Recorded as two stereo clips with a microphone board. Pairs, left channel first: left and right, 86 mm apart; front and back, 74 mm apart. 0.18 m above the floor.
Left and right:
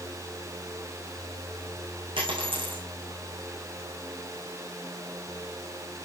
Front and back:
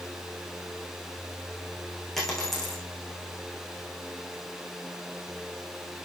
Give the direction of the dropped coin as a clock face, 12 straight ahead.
3 o'clock.